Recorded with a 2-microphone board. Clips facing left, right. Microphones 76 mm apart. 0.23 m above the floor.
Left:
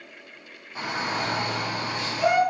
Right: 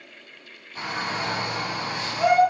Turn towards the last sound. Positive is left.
turn(degrees=-25)  # may be behind; listen again after turning